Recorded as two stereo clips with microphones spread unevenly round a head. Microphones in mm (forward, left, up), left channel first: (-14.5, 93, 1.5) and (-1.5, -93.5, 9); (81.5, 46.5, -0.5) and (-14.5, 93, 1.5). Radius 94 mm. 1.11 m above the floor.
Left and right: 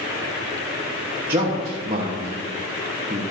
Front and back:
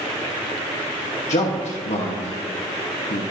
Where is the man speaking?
20° right, 1.3 m.